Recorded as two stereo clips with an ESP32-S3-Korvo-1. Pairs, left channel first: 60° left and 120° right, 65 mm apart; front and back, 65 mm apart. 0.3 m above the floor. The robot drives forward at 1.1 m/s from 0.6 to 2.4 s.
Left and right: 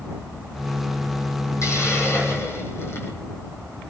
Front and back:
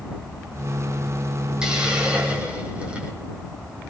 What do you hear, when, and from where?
1.6 s a hiss: 100° left, 6.5 m; by 3.1 s 110° left, 6.5 m